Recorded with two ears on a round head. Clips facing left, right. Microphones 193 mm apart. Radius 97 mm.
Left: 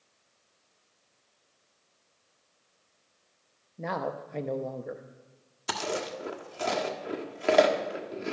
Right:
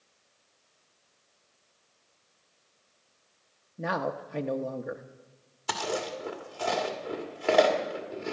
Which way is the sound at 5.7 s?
25° left (ahead or behind).